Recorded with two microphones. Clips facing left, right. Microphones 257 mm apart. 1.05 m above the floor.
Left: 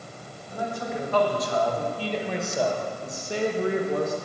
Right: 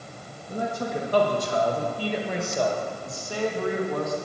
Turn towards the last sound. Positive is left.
turn(degrees=35)  # may be behind; listen again after turning